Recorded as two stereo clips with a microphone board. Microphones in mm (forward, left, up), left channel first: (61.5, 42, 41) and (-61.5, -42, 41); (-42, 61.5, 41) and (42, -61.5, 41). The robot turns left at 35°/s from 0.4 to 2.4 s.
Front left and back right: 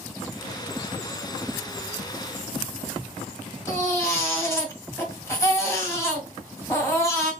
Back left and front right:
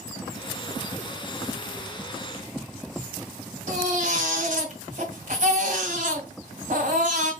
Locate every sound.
3.7 s a baby crying: 35° right, 1.8 m